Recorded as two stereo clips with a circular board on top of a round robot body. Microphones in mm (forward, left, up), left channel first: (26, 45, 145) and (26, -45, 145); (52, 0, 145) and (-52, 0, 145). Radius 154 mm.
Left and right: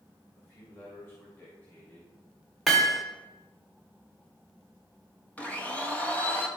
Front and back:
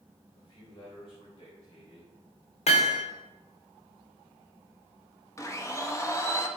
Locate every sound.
0.3 s a man speaking: 30° left, 3 m; by 2.1 s 20° left, 4 m
2.7 s hammering: straight ahead, 1.3 m
5.4 s a blender: 30° left, 1.5 m